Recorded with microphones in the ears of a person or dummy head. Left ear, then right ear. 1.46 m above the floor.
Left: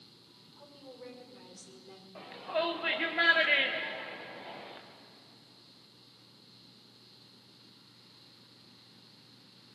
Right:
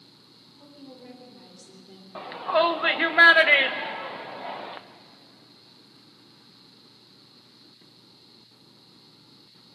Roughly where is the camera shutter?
No camera shutter in this recording.